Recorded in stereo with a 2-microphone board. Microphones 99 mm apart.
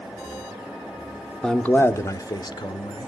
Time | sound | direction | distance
1.4 | a man speaking | 5° left (ahead or behind) | 0.8 m